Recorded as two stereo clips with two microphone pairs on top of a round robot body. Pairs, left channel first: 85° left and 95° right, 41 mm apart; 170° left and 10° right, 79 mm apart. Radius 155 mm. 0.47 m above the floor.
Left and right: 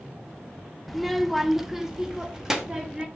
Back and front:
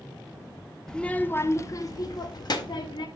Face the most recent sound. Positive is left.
turn(degrees=180)